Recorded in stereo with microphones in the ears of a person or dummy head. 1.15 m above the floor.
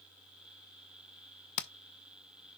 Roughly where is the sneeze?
No sneeze in this recording.